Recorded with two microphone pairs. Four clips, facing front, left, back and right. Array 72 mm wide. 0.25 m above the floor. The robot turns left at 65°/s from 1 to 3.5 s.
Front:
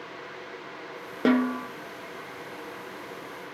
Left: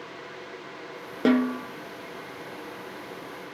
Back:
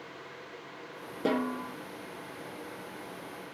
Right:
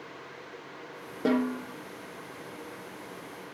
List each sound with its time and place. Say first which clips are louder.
1.2 s a snare drum: left 5 dB, front 7 dB; 25° left, 1.4 m; by 1.7 s 5° right, 1.4 m